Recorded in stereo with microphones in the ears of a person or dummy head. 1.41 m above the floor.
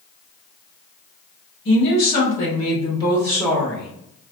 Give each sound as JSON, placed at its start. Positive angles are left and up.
{"t": 1.6, "sound": "a woman speaking", "side_deg": 60, "distance_m": 1.2}